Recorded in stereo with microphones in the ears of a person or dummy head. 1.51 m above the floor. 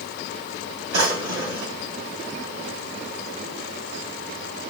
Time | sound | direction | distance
0.9 | a drawer | 70° right (ahead or behind) | 1.8 m